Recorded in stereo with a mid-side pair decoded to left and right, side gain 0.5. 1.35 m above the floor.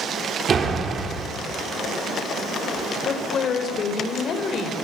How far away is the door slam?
About 3.5 m.